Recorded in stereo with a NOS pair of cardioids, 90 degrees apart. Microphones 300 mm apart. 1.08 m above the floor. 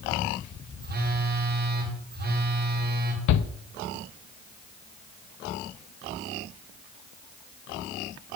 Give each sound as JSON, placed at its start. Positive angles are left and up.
{"t": 0.8, "sound": "a phone buzzing", "azimuth_deg": -30, "distance_m": 3.5}
{"t": 3.3, "sound": "a shout", "azimuth_deg": 65, "distance_m": 1.1}